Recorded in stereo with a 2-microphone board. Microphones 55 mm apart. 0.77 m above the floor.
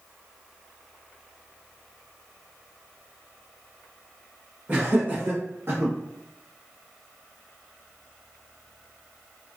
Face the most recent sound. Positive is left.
turn(degrees=-50)  # may be behind; listen again after turning